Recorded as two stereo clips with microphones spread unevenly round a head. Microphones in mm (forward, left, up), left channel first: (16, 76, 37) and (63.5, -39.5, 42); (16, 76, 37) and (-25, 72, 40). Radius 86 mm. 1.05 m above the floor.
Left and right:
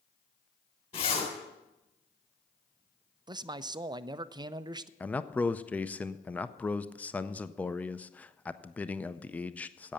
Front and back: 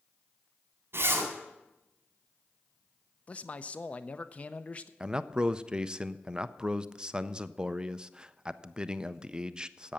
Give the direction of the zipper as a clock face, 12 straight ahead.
6 o'clock.